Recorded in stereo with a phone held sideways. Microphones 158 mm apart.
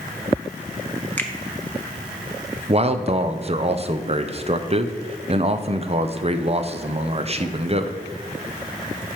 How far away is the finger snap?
About 0.7 m.